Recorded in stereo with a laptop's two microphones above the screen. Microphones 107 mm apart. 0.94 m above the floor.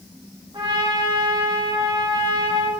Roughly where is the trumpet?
Right.